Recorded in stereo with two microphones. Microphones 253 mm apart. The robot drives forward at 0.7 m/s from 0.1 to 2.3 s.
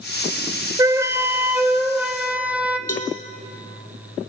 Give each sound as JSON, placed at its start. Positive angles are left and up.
{"t": 0.8, "sound": "a flute", "side_deg": -15, "distance_m": 0.5}
{"t": 2.9, "sound": "a cowbell", "side_deg": 65, "distance_m": 2.0}